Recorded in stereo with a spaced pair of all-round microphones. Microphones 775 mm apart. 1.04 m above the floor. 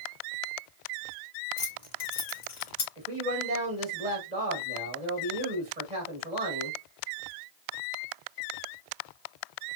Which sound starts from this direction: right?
A man speaking, at 3.0 s.